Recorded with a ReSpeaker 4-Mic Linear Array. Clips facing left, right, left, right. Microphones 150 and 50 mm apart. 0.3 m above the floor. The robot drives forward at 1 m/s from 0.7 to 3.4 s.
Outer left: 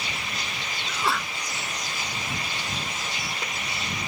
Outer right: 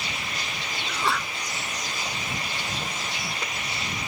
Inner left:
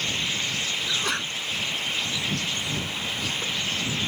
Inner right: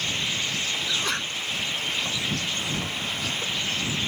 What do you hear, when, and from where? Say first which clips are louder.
0.9 s a sneeze: even, even; centre (ahead or behind)